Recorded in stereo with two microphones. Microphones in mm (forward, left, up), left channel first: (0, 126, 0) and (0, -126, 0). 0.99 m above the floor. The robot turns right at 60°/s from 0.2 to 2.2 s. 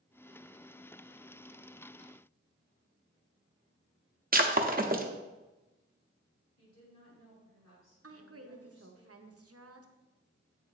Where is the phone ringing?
No phone ringing in this recording.